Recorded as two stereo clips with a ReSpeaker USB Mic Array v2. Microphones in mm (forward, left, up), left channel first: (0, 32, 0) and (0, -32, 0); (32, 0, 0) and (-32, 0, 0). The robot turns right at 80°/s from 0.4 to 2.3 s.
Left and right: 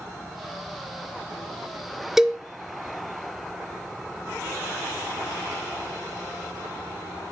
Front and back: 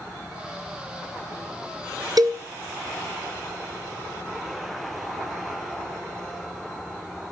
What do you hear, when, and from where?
2.2 s a cowbell: 175° right, 1.2 m; by 2.4 s 165° right, 1.2 m